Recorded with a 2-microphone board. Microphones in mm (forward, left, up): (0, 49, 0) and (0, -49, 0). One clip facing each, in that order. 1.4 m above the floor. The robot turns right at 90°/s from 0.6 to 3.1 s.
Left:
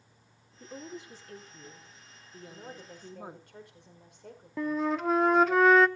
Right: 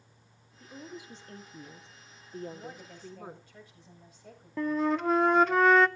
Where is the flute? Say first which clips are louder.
Right 1 dB; centre (ahead or behind), 0.6 m.